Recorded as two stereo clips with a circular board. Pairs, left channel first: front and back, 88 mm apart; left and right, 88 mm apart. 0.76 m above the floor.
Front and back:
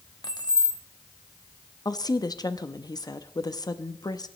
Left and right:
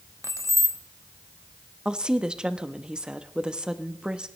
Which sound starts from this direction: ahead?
A woman speaking, at 1.9 s.